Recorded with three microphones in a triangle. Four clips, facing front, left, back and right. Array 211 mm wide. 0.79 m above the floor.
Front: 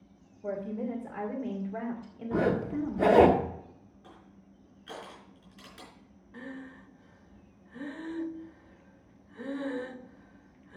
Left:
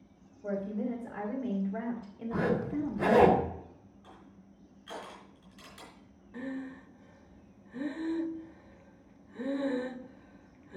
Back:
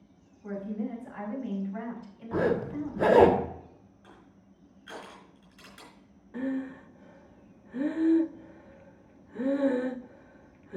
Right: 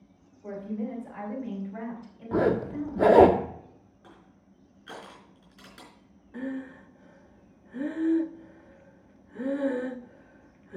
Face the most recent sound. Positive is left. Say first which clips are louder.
# right 4 dB, back 11 dB
turn(degrees=-155)